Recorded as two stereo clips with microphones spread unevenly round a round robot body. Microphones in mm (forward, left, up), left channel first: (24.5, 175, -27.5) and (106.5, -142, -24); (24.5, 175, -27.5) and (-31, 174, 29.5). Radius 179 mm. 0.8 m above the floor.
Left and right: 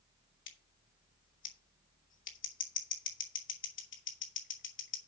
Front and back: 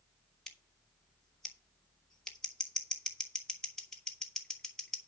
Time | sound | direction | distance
0.5 | scissors | 55° left | 2.5 m